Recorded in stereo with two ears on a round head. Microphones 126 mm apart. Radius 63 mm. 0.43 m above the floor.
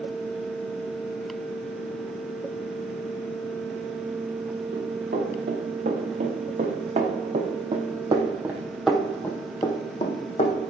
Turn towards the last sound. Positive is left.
turn(degrees=50)  # may be behind; listen again after turning